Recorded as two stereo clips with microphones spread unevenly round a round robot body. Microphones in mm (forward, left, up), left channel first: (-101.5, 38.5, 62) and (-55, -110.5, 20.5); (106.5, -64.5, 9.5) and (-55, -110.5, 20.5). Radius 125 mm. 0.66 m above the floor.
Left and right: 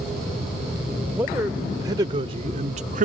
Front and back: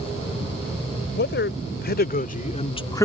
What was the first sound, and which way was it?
A man speaking, 5° left.